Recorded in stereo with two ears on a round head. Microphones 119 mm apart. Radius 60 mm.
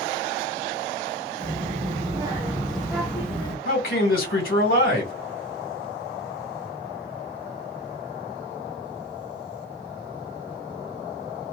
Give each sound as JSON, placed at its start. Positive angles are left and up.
{"t": 1.4, "sound": "a child speaking", "side_deg": -50, "distance_m": 0.7}
{"t": 3.6, "sound": "a man speaking", "side_deg": 75, "distance_m": 1.8}